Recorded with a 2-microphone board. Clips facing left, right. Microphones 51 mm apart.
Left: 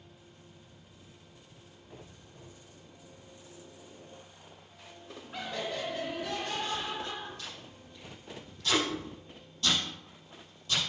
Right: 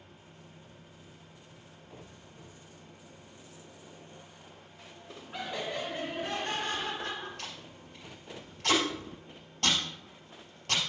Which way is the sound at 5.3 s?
5° right (ahead or behind).